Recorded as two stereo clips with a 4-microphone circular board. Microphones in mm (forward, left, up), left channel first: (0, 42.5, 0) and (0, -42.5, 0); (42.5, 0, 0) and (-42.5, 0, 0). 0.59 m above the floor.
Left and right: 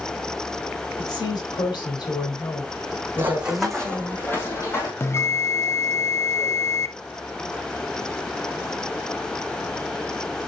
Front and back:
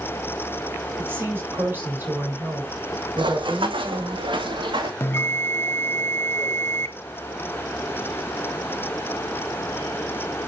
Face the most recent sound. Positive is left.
turn(degrees=50)